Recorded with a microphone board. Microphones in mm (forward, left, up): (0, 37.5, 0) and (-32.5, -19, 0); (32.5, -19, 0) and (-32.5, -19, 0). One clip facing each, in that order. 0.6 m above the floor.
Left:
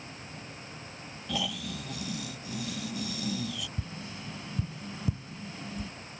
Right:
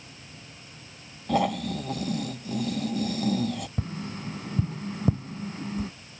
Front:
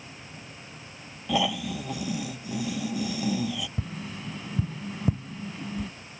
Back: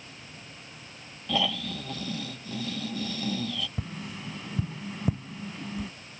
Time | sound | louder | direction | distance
1.3 | snoring | right 10 dB, front 3 dB | 75° right | ?
3.8 | tapping | right 6 dB, front 2 dB | 90° right | ?